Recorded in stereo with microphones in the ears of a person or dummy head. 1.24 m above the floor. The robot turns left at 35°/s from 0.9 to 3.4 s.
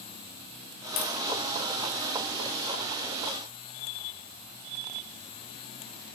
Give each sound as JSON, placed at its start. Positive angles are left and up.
{"t": 1.0, "sound": "tapping", "side_deg": 65, "distance_m": 3.0}